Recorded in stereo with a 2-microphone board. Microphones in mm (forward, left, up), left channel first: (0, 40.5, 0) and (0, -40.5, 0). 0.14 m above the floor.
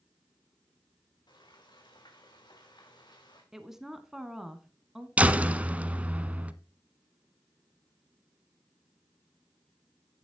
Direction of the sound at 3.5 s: 5° right (ahead or behind).